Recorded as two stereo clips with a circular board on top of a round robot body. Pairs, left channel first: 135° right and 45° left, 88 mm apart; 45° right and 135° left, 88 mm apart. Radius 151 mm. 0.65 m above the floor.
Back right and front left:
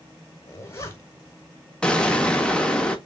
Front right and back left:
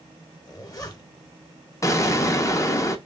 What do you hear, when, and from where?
0.5 s a zipper: 85° right, 1.1 m
1.8 s an explosion: 65° right, 0.8 m